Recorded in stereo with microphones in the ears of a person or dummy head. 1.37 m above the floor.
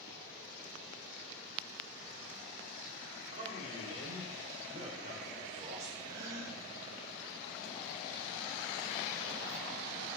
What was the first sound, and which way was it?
A man speaking, 30° right (ahead or behind).